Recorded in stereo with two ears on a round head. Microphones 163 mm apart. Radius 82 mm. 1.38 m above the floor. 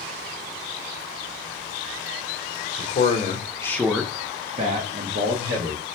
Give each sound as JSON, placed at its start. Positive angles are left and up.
{"t": 2.8, "sound": "a man speaking", "side_deg": 45, "distance_m": 0.8}